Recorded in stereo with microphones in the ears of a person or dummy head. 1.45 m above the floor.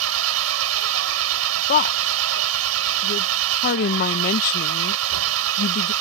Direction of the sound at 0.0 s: 80° right.